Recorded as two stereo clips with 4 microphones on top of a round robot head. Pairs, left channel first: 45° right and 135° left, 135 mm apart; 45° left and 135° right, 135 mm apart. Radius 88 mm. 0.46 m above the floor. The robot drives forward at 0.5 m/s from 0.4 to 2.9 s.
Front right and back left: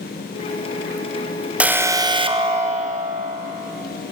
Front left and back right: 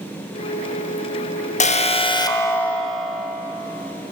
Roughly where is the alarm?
Ahead left.